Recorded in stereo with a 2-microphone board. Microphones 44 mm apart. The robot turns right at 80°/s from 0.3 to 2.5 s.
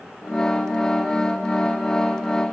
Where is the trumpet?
I don't hear a trumpet.